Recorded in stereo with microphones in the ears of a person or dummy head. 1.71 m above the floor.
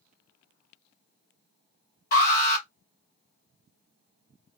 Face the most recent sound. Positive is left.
turn(degrees=45)  # may be behind; listen again after turning